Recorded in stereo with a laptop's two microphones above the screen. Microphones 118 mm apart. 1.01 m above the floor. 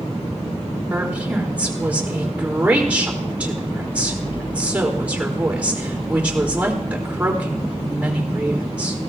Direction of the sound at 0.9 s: 10° right (ahead or behind).